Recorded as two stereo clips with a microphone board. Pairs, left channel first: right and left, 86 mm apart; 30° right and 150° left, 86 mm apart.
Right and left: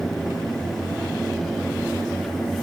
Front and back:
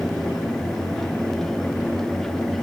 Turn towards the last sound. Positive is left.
No sound to turn to.